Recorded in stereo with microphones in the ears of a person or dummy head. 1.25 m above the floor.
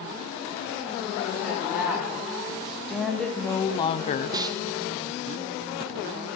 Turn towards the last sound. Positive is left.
turn(degrees=-20)  # may be behind; listen again after turning